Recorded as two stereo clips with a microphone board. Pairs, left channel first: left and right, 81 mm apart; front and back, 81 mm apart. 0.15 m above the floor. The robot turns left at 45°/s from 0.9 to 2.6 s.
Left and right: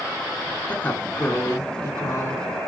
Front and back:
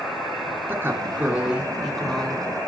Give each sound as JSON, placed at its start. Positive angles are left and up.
{"t": 0.7, "sound": "a woman speaking", "azimuth_deg": 140, "distance_m": 2.0}